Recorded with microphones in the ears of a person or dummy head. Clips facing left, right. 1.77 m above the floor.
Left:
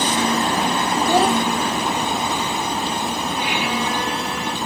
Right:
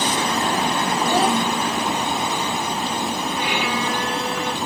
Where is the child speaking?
45° left (ahead or behind), 0.9 m.